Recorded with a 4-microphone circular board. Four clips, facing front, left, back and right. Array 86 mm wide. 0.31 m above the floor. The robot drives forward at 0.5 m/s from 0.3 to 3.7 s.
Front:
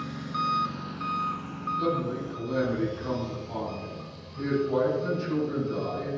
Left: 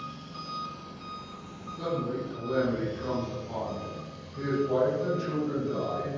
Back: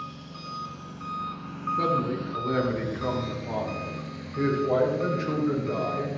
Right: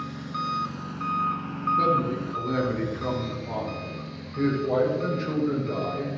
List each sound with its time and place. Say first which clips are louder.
0.0 s an engine running: right 9 dB, front 9 dB; 45° right, 0.9 m; by 6.2 s 145° right, 1.2 m
1.8 s a man speaking: right 6 dB, back 2 dB; 145° right, 6.5 m; by 6.1 s 150° right, 7 m